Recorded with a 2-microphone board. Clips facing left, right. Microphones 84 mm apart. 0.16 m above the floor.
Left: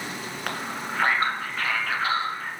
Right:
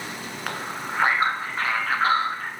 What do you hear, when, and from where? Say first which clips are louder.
0.5 s a man speaking: right 1 dB; centre (ahead or behind), 1.8 m; by 2.5 s 45° right (ahead or behind), 2 m